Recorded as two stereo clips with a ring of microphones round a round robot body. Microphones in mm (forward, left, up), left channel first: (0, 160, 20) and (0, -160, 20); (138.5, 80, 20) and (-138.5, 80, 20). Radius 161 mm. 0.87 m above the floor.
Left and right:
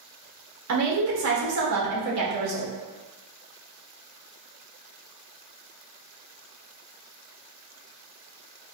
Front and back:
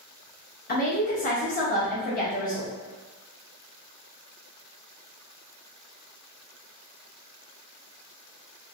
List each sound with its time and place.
0.7 s a woman speaking: 60° right, 1.2 m